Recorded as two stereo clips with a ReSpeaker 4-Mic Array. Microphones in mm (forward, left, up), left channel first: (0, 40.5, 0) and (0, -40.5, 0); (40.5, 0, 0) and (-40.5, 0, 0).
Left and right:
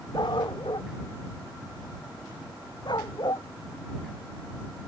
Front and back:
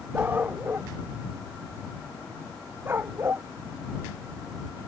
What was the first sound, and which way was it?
A dog barking, 115° left.